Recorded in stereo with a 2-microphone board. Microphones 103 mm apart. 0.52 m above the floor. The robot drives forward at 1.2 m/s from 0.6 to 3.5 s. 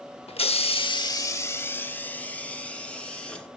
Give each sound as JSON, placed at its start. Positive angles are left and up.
{"t": 0.3, "sound": "a hiss", "side_deg": 70, "distance_m": 0.6}